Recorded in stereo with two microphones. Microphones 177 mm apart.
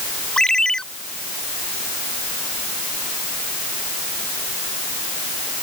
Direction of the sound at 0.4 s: 5° left (ahead or behind).